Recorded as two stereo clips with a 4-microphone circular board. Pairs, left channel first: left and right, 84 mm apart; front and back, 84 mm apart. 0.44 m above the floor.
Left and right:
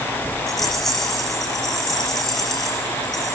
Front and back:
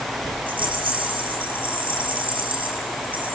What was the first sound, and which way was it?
A rattle, 175° left.